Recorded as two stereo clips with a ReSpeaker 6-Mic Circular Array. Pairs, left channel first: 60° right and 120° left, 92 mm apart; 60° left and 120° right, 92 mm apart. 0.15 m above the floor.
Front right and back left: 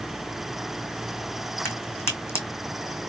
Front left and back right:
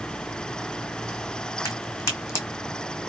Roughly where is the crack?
Ahead.